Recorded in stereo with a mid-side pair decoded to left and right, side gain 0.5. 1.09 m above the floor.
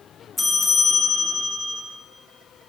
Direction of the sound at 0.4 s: 20° left.